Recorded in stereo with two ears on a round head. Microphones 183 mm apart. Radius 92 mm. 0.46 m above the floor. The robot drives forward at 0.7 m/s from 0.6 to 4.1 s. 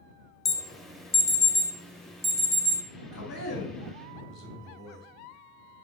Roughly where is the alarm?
Centre.